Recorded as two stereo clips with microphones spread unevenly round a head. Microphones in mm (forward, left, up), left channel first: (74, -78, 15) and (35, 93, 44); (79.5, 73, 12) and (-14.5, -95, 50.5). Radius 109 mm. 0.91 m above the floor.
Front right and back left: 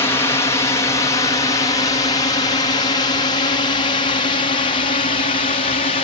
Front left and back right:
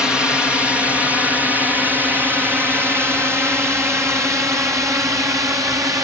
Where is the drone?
25° right; by 6.0 s 45° right.